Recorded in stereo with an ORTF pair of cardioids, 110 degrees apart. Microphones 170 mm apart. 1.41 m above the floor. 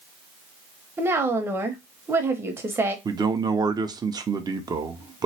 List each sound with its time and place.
1.0 s a woman speaking: 10° right, 0.9 m
3.0 s a man speaking: 20° right, 0.7 m